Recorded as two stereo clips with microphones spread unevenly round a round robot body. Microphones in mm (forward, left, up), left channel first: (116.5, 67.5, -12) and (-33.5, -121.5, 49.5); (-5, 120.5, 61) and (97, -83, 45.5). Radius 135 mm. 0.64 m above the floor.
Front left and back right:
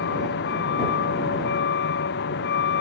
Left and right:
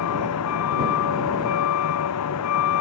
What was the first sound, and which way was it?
A vehicle, 105° left.